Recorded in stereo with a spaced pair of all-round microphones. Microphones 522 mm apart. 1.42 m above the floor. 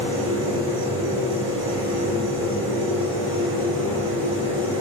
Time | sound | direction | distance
0.0 | a machine running | 35° right (ahead or behind) | 1.9 m